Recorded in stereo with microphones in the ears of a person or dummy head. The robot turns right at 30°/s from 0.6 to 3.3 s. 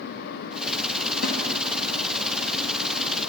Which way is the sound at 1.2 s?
60° left (ahead or behind).